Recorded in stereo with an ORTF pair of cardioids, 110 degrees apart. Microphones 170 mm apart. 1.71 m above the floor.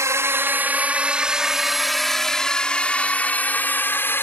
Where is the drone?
15° right; by 4.2 s 15° left.